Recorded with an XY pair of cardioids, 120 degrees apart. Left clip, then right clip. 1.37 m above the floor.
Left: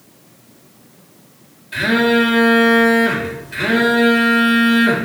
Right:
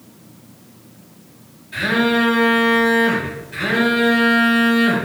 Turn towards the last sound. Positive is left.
turn(degrees=45)